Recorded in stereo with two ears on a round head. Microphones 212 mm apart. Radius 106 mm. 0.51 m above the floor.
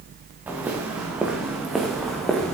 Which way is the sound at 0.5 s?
5° right (ahead or behind).